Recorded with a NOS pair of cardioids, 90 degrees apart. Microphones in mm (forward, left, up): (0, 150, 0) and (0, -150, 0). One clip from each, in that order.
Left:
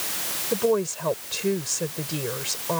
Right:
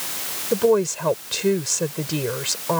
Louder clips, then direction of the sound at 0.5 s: Right 5 dB; 30° right.